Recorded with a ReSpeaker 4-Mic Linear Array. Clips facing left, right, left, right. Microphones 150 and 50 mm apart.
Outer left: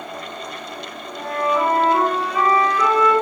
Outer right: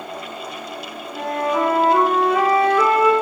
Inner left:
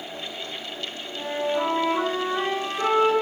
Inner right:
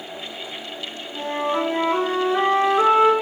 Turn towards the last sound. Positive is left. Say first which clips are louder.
# even, inner right 2 dB
turn(degrees=-85)